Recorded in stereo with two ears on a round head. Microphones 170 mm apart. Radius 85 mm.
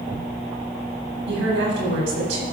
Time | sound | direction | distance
1.3 | a woman speaking | 70° right (ahead or behind) | 6.5 m